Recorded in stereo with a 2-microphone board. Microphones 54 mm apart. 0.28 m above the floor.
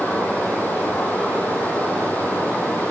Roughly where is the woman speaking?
I don't hear a woman speaking.